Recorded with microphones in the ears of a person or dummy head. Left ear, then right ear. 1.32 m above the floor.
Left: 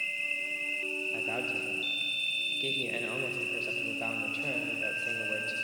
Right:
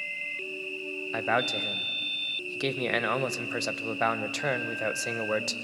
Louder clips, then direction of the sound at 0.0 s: Left 2 dB; 55° left (ahead or behind).